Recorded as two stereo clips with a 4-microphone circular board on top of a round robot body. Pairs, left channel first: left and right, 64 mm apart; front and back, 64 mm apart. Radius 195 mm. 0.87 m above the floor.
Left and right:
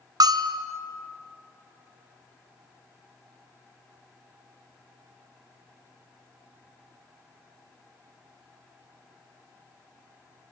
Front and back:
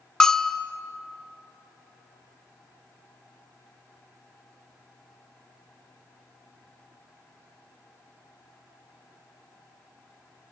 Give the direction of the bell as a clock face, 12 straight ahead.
3 o'clock.